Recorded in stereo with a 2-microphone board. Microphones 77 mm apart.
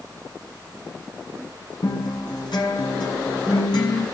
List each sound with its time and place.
1.8 s a guitar: 70° left (ahead or behind), 7.5 m